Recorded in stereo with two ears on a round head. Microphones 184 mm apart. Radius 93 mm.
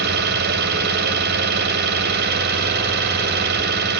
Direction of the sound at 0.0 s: 50° right (ahead or behind).